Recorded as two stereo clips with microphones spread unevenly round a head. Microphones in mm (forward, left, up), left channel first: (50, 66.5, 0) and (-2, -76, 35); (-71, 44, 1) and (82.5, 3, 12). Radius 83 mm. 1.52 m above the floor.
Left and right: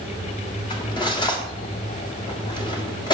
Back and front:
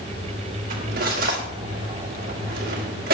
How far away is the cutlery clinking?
About 1.7 m.